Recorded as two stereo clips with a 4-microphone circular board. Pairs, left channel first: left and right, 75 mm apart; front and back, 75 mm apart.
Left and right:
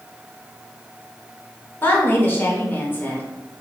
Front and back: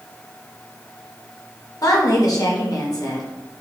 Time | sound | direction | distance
1.8 | a woman speaking | 30° left | 0.9 m